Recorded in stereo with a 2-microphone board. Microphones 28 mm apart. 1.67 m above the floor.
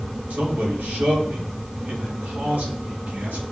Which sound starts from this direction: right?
A man speaking, at 0.3 s.